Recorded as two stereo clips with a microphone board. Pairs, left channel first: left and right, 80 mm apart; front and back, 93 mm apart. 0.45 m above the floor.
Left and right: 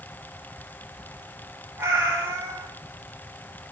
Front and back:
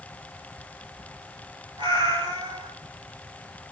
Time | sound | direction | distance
1.8 | a cat meowing | 155° right | 2.5 m